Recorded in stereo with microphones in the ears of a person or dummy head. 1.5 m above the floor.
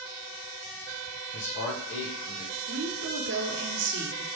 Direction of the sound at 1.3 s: 60° left (ahead or behind).